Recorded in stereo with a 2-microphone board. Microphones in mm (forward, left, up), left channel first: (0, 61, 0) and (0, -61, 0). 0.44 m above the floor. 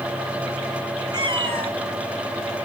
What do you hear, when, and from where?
1.1 s a cat meowing: 35° right (ahead or behind), 1.2 m; by 2.7 s 65° right (ahead or behind), 1.9 m